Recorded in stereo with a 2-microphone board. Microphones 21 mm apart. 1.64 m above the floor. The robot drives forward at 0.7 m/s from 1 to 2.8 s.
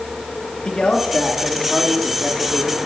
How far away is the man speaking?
About 3 m.